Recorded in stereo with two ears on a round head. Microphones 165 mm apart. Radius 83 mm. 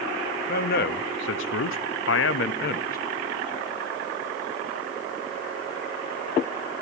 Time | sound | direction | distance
0.5 | a man speaking | 50° left (ahead or behind) | 1.1 m